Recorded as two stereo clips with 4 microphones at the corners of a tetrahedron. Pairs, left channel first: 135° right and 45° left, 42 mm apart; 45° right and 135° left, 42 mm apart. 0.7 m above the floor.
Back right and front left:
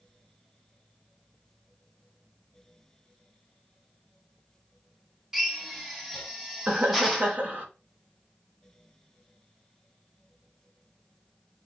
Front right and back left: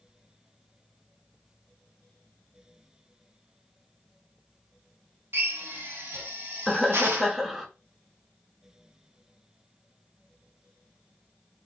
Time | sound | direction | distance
5.3 | a drill | 130° left | 1.2 m
6.7 | laughter | 50° left | 1.0 m